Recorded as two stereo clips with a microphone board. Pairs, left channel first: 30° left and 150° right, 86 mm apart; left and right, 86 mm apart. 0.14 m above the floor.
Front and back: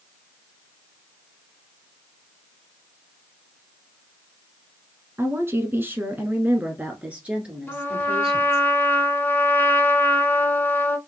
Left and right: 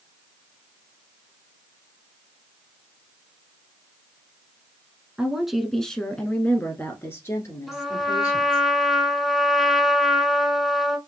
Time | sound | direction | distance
5.2 | a woman speaking | 160° right | 1.1 m
7.7 | a trumpet | 5° right | 0.7 m